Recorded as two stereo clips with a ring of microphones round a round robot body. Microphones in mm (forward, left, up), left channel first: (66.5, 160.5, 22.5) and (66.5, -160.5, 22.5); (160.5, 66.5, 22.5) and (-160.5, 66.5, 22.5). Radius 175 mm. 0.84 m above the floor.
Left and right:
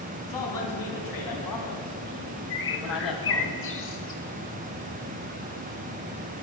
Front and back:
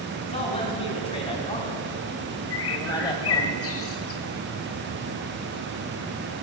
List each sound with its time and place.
0.2 s a man speaking: 70° left, 5.5 m; by 3.5 s 75° left, 3.5 m
2.5 s a bird: 40° left, 1.5 m